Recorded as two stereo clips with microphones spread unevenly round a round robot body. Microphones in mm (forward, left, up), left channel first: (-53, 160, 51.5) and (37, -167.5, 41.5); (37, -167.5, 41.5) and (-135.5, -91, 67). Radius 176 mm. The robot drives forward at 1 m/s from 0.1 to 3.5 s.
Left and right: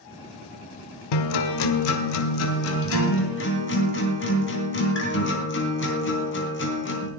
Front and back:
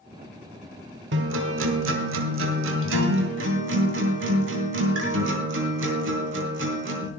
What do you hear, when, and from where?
1.1 s a guitar: 115° left, 1.0 m; by 7.1 s 165° left, 3 m